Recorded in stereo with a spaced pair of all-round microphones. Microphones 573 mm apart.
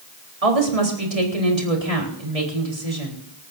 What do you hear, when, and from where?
0.4 s a woman speaking: 75° right (ahead or behind), 4 m